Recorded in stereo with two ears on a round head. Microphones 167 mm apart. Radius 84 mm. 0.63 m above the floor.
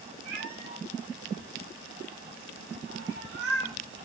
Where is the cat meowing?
55° right (ahead or behind), 7.5 m; by 3.8 s 65° right (ahead or behind), 6 m.